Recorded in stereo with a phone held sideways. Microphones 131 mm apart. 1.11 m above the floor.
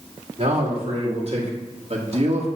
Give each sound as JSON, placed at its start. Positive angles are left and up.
{"t": 0.4, "sound": "a man speaking", "side_deg": -50, "distance_m": 2.5}